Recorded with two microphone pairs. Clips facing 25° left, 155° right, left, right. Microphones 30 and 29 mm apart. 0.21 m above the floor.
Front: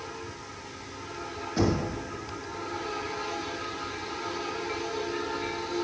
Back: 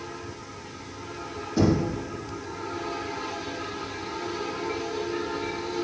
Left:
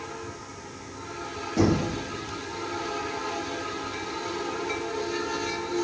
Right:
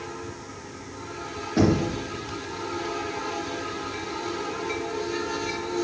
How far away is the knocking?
About 2.0 m.